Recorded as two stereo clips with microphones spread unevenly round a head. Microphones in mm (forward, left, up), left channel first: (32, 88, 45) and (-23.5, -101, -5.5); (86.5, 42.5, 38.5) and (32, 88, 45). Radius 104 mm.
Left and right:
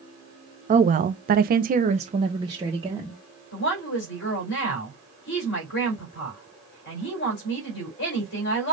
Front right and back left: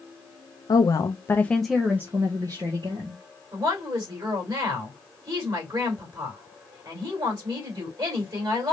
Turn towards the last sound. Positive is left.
turn(degrees=110)